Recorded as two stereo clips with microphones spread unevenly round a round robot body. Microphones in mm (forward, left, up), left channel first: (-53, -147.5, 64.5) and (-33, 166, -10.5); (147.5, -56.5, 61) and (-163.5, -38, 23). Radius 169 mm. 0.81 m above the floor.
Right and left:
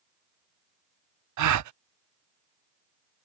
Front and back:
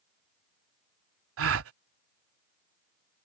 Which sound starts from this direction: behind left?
A gasp, at 1.4 s.